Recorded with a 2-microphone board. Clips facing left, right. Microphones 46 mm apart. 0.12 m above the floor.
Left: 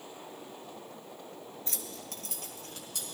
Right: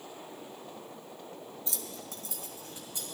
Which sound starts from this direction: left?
Keys jangling, at 1.7 s.